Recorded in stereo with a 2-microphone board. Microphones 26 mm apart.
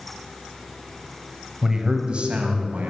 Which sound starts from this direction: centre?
A man speaking, at 1.6 s.